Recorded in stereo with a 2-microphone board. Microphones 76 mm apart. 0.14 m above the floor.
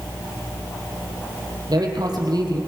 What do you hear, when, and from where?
1.7 s a man speaking: 60° right (ahead or behind), 3.5 m